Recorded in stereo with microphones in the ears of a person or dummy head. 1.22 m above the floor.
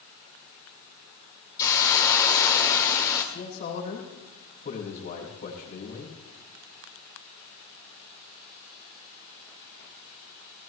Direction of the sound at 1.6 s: 15° left (ahead or behind).